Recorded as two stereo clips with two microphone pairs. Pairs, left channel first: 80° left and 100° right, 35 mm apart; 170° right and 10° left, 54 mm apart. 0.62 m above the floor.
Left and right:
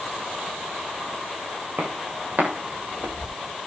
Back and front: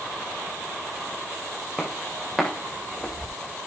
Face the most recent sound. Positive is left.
turn(degrees=-85)